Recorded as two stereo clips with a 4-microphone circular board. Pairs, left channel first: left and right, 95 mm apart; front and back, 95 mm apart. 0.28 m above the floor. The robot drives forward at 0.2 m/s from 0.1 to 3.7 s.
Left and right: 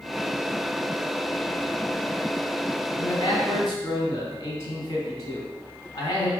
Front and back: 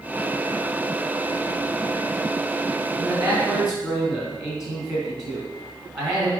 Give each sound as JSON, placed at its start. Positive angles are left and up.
{"t": 3.0, "sound": "a man speaking", "azimuth_deg": 135, "distance_m": 2.0}